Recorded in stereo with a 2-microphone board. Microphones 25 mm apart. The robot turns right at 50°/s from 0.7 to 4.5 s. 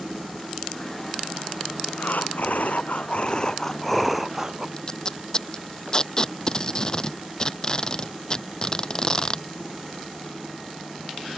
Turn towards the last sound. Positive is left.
turn(degrees=30)  # may be behind; listen again after turning